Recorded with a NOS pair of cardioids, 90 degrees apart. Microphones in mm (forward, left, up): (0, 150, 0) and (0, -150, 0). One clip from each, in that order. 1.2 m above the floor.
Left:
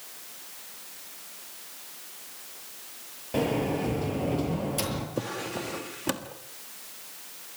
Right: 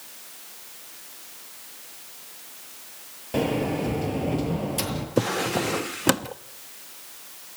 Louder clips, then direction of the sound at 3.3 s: Right 2 dB; 15° right.